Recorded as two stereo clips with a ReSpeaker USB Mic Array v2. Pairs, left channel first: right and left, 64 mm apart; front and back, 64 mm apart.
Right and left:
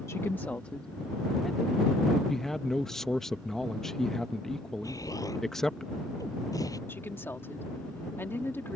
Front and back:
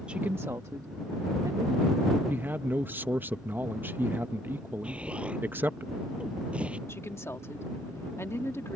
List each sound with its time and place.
0.1 s a woman speaking: 110° right; by 2.2 s straight behind
2.3 s a man speaking: 165° right
4.8 s an explosion: 110° right
6.9 s a woman speaking: 40° right